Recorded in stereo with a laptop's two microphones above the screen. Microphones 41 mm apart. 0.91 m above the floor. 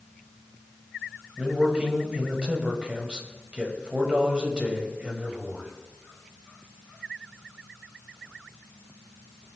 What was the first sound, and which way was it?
A man speaking, 30° right (ahead or behind).